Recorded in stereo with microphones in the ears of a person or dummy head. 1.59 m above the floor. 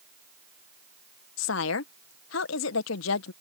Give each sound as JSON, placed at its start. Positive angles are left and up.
{"t": 1.4, "sound": "a woman speaking", "side_deg": 65}